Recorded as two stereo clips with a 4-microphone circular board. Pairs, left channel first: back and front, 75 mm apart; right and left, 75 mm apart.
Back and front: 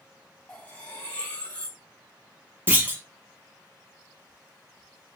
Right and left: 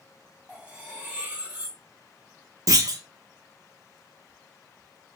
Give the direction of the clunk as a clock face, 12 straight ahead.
10 o'clock.